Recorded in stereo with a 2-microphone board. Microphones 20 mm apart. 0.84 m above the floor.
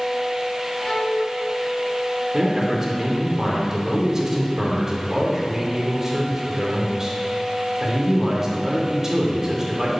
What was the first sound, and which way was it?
A violin, 20° left (ahead or behind).